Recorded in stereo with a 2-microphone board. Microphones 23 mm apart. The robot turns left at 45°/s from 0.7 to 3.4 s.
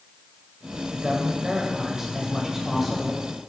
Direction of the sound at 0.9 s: 20° right (ahead or behind).